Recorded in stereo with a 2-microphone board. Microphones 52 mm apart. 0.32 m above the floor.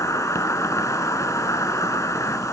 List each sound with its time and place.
0.0 s an insect: 80° left, 1.3 m